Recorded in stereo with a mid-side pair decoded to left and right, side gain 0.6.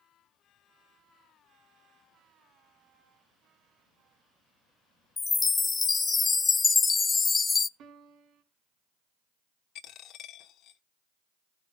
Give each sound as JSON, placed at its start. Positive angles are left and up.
{"t": 5.2, "sound": "a chime", "azimuth_deg": 25, "distance_m": 0.5}
{"t": 7.8, "sound": "a piano", "azimuth_deg": -60, "distance_m": 3.0}
{"t": 9.8, "sound": "a dropped coin", "azimuth_deg": 60, "distance_m": 1.3}